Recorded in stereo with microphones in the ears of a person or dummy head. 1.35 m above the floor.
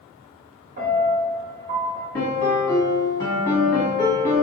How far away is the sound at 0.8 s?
About 1.4 m.